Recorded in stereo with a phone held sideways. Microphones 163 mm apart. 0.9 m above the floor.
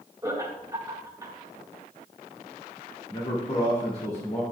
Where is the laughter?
20° right (ahead or behind), 1.9 m.